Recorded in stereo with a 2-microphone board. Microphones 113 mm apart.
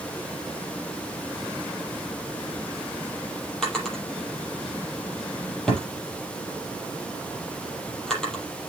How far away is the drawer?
About 6 m.